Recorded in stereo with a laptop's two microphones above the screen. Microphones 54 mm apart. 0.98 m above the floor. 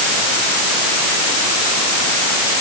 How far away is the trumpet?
No trumpet in this recording.